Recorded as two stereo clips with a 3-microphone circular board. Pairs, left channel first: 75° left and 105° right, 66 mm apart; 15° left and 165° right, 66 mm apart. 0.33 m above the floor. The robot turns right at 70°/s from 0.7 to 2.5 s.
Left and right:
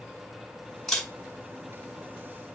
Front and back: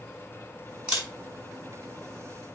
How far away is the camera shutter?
About 1.6 m.